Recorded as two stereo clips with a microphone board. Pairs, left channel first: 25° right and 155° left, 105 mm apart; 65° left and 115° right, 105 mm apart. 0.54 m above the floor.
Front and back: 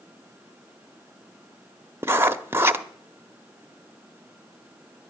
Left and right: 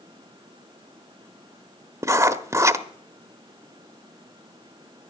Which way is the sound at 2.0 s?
150° right.